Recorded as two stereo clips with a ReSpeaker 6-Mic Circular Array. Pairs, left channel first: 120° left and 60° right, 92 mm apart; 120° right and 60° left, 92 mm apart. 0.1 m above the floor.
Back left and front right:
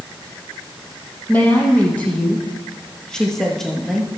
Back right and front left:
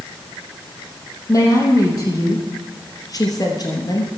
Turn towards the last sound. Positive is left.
turn(degrees=-150)